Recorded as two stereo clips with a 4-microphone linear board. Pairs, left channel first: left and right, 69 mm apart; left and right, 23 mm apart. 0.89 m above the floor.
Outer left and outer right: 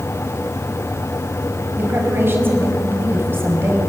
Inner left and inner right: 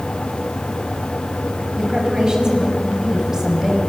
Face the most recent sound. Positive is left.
turn(degrees=-35)  # may be behind; listen again after turning